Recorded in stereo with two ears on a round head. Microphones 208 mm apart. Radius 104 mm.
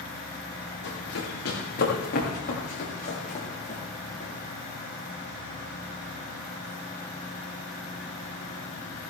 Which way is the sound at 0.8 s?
55° left (ahead or behind).